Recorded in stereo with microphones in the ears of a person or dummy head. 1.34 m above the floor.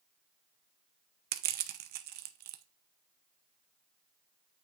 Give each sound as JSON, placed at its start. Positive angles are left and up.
{"t": 1.3, "sound": "crushing", "side_deg": -50, "distance_m": 0.7}